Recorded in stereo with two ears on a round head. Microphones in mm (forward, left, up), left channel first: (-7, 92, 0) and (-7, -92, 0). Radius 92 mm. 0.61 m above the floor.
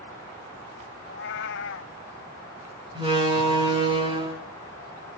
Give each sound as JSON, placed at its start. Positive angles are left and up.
{"t": 1.0, "sound": "a cat meowing", "side_deg": 60, "distance_m": 0.6}
{"t": 3.0, "sound": "a door slam", "side_deg": -25, "distance_m": 4.5}